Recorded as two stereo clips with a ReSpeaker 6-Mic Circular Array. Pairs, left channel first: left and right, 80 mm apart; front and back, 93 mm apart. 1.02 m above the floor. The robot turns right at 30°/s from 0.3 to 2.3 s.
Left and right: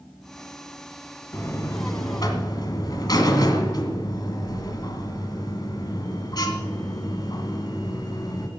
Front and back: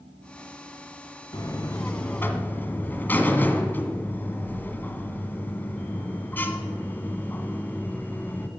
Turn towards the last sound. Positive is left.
turn(degrees=65)